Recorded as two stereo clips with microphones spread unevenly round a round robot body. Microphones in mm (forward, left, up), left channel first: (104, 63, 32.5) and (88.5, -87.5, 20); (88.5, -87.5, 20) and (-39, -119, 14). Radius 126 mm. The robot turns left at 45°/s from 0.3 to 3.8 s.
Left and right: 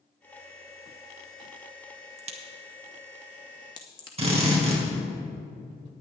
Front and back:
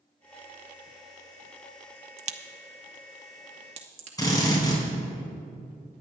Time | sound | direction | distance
2.2 | a crack | 135° right | 0.7 m
4.2 | a drill | 45° right | 4.5 m